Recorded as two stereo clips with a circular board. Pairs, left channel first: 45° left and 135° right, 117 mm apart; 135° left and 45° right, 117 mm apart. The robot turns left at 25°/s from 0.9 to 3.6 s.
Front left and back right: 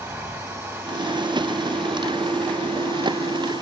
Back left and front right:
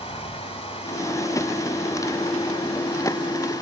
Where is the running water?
155° left, 1.8 m; by 3.6 s 85° left, 1.8 m.